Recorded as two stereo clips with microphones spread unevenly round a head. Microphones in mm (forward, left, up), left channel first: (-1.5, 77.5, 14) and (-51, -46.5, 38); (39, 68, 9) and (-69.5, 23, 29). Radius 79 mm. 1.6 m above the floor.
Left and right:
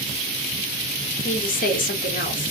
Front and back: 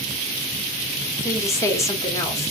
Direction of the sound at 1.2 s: 90° left.